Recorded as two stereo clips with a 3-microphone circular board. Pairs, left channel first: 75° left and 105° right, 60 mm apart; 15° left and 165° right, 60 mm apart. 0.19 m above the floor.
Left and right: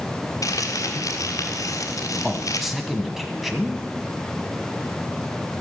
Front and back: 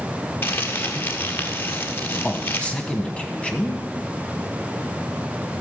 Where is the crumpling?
65° left, 1.5 m.